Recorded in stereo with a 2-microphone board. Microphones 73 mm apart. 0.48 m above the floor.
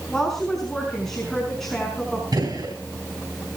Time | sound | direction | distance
0.1 | a woman speaking | 5° left (ahead or behind) | 5.5 m
2.3 | a gunshot | 60° right (ahead or behind) | 4 m